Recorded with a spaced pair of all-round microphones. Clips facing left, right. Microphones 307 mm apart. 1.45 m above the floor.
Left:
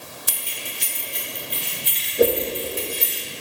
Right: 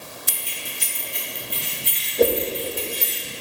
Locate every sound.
0.3 s keys jangling: 75° right (ahead or behind), 1.8 m; by 3.2 s 50° right (ahead or behind), 3.5 m
2.2 s a whoosh: 5° left (ahead or behind), 0.8 m